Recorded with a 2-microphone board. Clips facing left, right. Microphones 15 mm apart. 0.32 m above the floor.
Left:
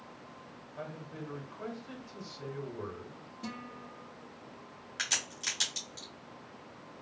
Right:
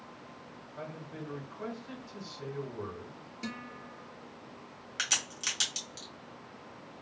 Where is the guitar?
60° right (ahead or behind), 2 m.